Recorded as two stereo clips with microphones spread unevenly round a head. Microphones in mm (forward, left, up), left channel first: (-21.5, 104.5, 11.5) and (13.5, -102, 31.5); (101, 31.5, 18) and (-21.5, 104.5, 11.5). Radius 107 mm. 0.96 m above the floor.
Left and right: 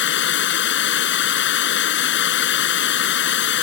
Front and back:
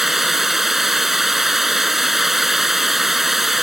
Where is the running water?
60° left.